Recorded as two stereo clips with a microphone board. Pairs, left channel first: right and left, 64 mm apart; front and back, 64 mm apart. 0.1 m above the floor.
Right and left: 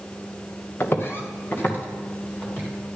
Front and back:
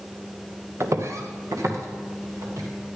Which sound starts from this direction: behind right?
Footsteps, at 0.8 s.